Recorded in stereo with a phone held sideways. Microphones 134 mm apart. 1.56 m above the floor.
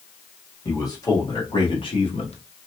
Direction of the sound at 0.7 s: 25° left (ahead or behind).